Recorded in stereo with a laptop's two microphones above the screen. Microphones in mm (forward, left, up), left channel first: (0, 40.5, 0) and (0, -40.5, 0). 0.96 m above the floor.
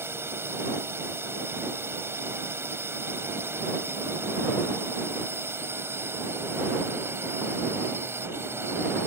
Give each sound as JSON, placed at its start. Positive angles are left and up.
{"t": 0.0, "sound": "a drone", "side_deg": -30}